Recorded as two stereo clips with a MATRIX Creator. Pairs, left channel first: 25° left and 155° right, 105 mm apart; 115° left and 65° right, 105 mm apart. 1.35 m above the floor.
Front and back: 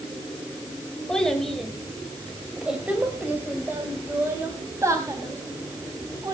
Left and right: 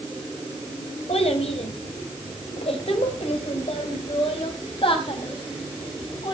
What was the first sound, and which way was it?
A child speaking, 105° left.